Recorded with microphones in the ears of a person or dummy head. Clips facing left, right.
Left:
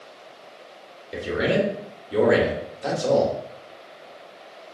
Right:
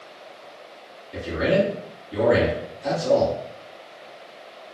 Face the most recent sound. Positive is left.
turn(degrees=75)  # may be behind; listen again after turning